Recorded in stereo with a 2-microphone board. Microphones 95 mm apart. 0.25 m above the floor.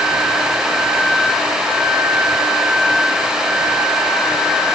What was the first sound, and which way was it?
Only background noise.